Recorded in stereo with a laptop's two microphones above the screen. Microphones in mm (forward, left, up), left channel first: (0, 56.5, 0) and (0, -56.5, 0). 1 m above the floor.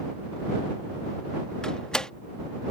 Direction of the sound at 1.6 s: 5° left (ahead or behind).